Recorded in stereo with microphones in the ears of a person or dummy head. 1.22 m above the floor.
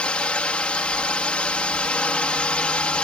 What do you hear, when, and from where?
0.0 s a drone: 10° left (ahead or behind)